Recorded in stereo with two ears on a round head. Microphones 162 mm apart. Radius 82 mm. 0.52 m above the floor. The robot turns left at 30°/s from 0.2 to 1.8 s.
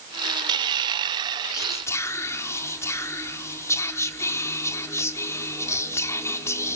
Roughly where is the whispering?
Centre.